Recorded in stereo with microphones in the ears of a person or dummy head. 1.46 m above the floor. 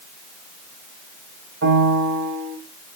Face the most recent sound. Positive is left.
turn(degrees=-70)  # may be behind; listen again after turning